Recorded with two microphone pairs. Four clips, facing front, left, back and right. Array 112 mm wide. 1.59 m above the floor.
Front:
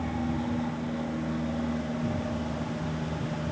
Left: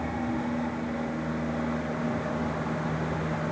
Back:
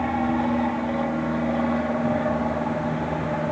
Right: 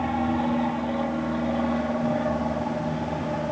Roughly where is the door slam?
I don't hear a door slam.